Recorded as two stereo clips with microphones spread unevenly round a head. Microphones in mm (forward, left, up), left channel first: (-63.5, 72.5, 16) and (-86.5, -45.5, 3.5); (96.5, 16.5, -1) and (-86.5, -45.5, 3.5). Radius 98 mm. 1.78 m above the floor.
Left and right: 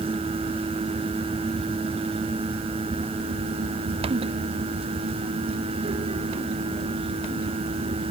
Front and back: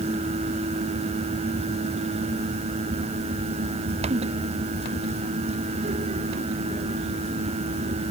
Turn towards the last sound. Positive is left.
No sound to turn to.